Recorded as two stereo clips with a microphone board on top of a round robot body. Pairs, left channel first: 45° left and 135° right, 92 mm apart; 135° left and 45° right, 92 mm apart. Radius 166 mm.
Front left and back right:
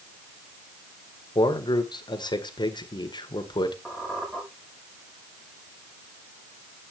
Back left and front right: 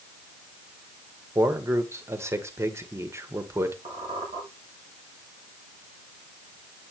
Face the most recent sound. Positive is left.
turn(degrees=-55)